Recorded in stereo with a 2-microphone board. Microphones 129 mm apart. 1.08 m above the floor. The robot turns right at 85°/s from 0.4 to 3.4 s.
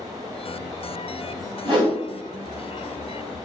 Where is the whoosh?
45° right (ahead or behind), 1.3 m; by 2.0 s 25° right (ahead or behind), 1.3 m.